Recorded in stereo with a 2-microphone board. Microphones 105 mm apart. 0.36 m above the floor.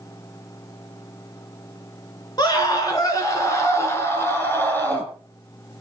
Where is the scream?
40° left (ahead or behind), 3.5 m; by 5.1 s 15° left (ahead or behind), 4 m.